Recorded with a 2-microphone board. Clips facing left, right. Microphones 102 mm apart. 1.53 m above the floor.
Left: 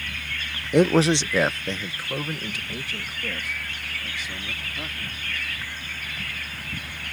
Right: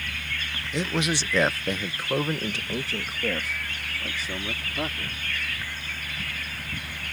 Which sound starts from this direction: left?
A man speaking, at 0.7 s.